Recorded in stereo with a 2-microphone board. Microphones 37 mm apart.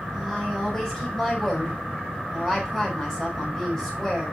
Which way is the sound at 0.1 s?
15° left (ahead or behind).